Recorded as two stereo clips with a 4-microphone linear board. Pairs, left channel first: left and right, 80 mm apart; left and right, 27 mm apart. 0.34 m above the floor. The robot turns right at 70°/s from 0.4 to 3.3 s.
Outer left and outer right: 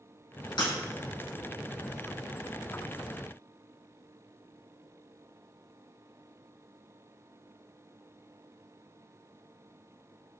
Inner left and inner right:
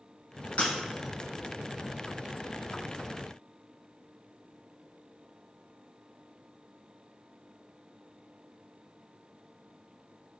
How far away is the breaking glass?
About 1.2 m.